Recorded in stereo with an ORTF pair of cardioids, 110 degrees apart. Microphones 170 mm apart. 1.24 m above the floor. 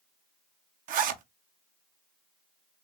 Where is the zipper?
55° right, 0.5 m.